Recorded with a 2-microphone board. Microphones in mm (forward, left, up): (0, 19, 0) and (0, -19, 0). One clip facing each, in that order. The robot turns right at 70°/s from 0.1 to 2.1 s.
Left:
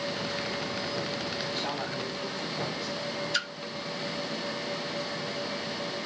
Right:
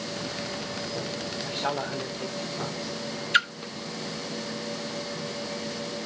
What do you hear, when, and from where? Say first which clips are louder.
1.4 s a man speaking: right 3 dB; 100° right, 2.5 m; by 3.1 s 55° right, 2.5 m
3.3 s a splash: right 11 dB; 40° right (ahead or behind), 0.8 m